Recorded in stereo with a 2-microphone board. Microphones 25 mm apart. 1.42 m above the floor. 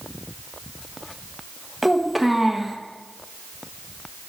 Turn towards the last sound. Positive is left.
turn(degrees=0)  # may be behind; listen again after turning